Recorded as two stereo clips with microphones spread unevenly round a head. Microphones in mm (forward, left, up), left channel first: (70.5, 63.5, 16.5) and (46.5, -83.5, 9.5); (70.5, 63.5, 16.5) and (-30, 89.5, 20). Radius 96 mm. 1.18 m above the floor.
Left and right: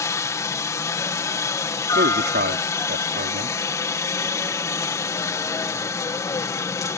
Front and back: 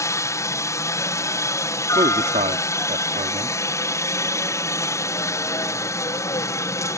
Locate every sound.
0.0 s a helicopter: 20° left
1.9 s a man speaking: 145° right